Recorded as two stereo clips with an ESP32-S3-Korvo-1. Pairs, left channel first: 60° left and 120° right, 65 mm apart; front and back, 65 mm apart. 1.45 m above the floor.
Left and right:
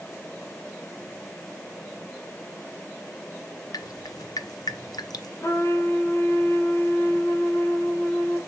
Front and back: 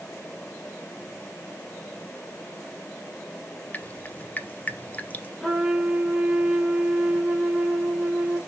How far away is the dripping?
About 0.7 m.